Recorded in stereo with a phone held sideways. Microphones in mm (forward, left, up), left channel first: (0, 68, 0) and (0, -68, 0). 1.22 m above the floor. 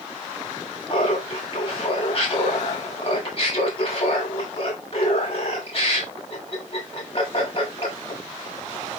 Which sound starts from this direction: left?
Laughter, at 0.9 s.